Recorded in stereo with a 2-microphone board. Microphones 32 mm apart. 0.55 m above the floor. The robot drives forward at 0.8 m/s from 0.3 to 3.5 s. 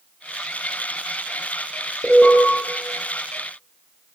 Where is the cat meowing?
I don't hear a cat meowing.